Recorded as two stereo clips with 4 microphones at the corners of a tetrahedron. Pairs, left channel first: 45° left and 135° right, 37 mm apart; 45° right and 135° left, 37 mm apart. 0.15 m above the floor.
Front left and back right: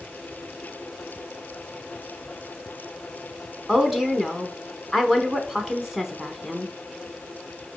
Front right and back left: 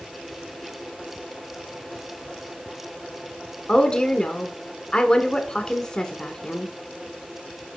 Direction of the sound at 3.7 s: 60° right.